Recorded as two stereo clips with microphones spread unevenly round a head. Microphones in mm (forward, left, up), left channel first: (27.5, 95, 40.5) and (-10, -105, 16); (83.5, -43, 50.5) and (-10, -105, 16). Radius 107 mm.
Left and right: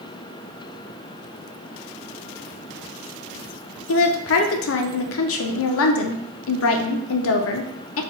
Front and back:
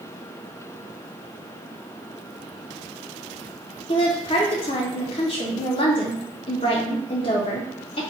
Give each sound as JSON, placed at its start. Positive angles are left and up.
{"t": 3.9, "sound": "a woman speaking", "azimuth_deg": 90, "distance_m": 0.5}